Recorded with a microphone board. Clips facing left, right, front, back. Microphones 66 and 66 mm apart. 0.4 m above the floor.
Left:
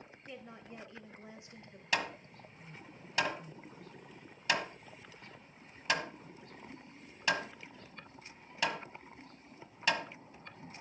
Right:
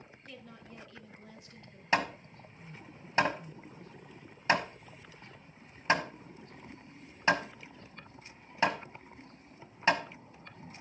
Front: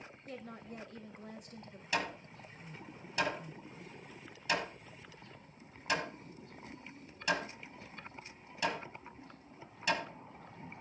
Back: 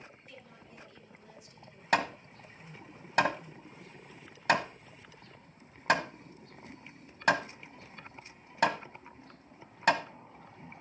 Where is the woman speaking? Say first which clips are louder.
Left 2 dB, front 6 dB; 25° left, 1.7 m.